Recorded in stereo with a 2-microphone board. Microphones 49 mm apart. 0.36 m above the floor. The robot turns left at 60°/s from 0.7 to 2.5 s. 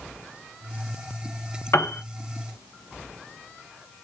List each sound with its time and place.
1.7 s a piano: 60° left (ahead or behind), 0.7 m; by 2.0 s 50° left (ahead or behind), 0.7 m